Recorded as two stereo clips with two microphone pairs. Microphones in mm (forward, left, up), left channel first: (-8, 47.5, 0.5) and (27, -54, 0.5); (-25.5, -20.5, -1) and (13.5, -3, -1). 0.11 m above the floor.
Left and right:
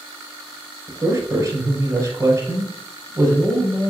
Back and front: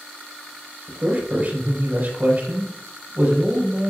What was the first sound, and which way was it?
A man speaking, 20° right.